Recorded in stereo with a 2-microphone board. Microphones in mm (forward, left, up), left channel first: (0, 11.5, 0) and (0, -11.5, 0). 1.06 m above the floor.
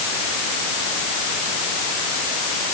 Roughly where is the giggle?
I don't hear a giggle.